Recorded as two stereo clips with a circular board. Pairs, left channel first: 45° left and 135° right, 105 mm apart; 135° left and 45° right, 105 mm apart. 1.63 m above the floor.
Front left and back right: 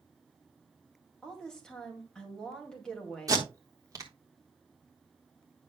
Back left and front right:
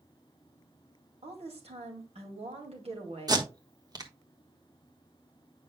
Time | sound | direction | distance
1.2 | a woman speaking | 35° right | 2 m
3.3 | tape being pulled | 85° right | 1.1 m